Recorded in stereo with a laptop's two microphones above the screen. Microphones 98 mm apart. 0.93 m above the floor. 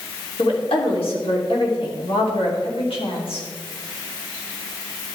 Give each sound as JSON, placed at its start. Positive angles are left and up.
{"t": 0.4, "sound": "a woman speaking", "side_deg": 75, "distance_m": 3.0}